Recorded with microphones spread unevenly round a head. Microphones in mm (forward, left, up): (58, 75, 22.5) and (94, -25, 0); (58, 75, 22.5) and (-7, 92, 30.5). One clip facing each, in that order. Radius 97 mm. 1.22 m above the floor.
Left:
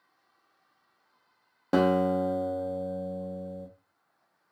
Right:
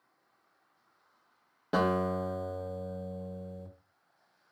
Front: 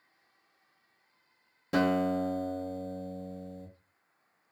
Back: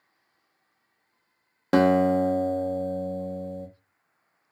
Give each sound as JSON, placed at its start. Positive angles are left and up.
{"t": 1.7, "sound": "a guitar", "azimuth_deg": 160, "distance_m": 0.5}